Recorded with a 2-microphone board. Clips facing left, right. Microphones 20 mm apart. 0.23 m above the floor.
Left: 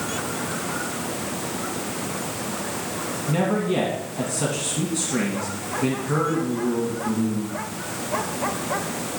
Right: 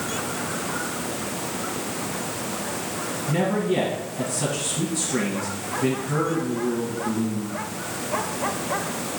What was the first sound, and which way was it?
A man speaking, 30° left (ahead or behind).